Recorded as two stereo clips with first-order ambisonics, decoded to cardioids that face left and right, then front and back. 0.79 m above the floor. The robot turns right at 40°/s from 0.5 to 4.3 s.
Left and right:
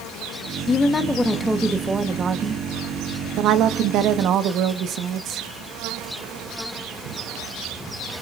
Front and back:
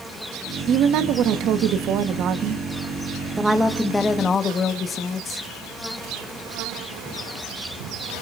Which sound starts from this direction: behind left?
A woman speaking, at 0.7 s.